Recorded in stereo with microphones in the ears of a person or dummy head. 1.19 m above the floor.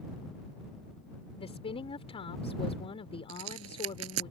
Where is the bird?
I don't hear a bird.